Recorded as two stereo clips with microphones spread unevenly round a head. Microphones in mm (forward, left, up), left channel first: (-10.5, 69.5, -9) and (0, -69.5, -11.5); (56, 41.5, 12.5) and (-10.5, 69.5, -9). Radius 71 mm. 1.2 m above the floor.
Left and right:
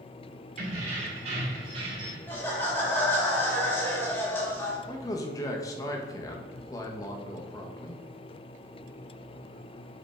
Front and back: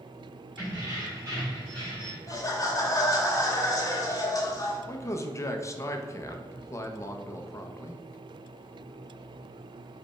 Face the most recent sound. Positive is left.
turn(degrees=25)